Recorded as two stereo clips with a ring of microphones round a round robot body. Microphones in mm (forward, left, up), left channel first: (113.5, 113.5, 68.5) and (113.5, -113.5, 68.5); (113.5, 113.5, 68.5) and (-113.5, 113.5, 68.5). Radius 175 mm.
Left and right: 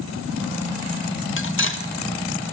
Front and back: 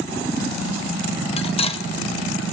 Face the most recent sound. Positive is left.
turn(degrees=65)